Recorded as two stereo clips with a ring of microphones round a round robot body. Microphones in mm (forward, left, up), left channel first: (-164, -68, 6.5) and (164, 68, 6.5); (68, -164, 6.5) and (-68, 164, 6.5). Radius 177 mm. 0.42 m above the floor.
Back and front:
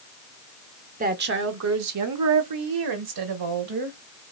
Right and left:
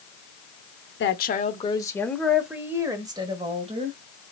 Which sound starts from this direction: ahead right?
A woman speaking, at 1.0 s.